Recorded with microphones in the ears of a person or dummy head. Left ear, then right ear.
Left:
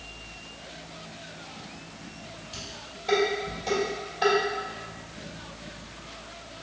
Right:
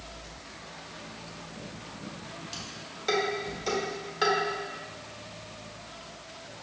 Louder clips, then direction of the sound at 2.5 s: Left 3 dB; 55° right (ahead or behind).